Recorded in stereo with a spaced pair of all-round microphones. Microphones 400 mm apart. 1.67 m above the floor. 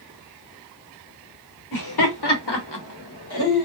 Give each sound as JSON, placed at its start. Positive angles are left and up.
{"t": 1.7, "sound": "laughter", "side_deg": 55, "distance_m": 1.1}